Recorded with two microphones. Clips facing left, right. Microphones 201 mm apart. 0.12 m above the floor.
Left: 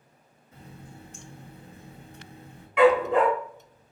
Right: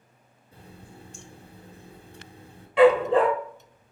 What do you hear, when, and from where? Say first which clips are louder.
0.5 s a running tap: left 1 dB; 30° right (ahead or behind), 1.2 m
2.8 s a dog barking: right 2 dB; 30° right (ahead or behind), 0.9 m